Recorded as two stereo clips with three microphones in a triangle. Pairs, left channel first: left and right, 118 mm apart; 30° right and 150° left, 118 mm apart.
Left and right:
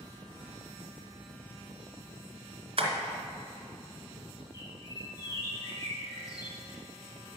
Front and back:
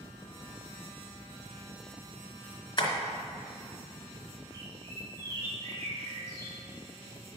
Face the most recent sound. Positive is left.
turn(degrees=35)